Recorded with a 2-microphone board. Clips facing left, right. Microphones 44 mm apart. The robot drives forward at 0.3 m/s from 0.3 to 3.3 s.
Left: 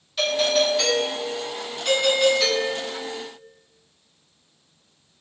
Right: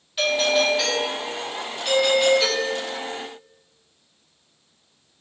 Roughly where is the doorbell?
Centre.